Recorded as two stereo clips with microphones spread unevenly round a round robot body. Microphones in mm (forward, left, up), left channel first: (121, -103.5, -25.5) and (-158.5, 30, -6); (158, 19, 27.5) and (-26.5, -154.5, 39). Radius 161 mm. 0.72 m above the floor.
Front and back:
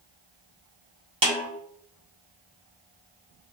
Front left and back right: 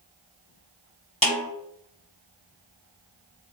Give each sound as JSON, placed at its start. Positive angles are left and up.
{"t": 1.2, "sound": "a snare drum", "azimuth_deg": 90, "distance_m": 1.1}